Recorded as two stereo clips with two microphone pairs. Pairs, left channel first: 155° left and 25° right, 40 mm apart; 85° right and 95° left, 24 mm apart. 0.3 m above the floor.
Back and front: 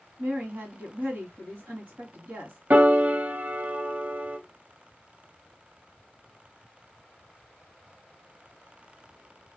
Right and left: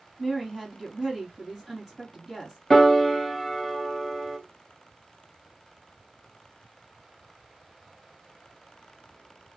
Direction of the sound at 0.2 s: 15° left.